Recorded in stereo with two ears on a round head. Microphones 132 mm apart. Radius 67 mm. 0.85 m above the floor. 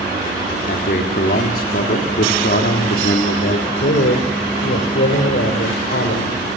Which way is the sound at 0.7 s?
65° left (ahead or behind).